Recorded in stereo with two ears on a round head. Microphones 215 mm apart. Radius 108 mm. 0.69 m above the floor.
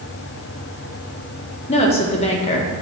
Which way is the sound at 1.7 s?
25° left (ahead or behind).